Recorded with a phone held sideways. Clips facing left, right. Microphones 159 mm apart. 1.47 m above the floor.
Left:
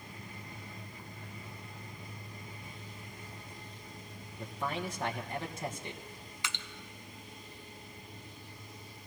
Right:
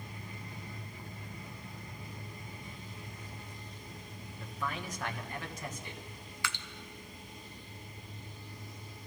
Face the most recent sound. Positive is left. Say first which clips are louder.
# right 3 dB
turn(degrees=20)  # may be behind; listen again after turning